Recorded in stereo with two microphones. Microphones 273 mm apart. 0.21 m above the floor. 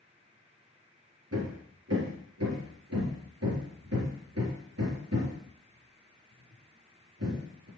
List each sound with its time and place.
1.3 s hammering: 60° right (ahead or behind), 3.5 m